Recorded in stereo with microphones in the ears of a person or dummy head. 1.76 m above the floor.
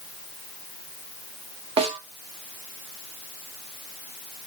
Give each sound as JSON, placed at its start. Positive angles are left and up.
{"t": 1.8, "sound": "a snare drum", "side_deg": -30, "distance_m": 1.1}